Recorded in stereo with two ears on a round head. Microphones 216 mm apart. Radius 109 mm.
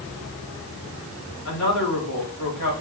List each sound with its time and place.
1.4 s a woman speaking: 85° left, 4 m